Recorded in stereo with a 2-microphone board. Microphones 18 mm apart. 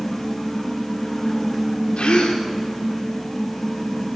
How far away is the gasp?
About 7.5 m.